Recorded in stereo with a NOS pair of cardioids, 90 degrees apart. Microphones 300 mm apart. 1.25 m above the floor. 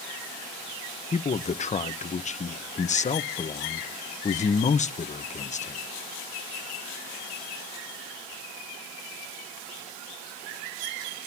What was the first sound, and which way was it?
A man speaking, 25° left.